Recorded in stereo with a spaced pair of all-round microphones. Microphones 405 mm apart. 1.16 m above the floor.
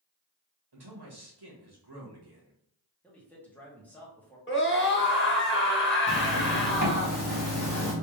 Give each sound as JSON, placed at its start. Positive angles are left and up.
{"t": 0.7, "sound": "a man speaking", "side_deg": -75, "distance_m": 1.5}
{"t": 3.0, "sound": "a man speaking", "side_deg": 5, "distance_m": 1.4}
{"t": 4.5, "sound": "a scream", "side_deg": 30, "distance_m": 1.1}
{"t": 6.1, "sound": "a zipper", "side_deg": 50, "distance_m": 1.3}